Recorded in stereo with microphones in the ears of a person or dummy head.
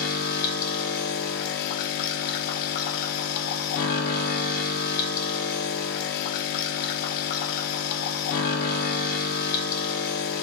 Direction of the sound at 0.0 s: 50° left (ahead or behind).